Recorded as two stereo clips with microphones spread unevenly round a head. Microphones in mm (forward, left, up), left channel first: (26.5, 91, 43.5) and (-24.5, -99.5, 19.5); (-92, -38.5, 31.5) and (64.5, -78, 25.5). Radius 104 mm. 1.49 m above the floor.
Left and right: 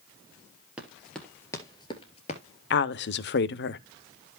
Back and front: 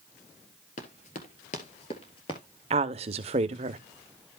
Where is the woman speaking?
40° left, 0.8 m.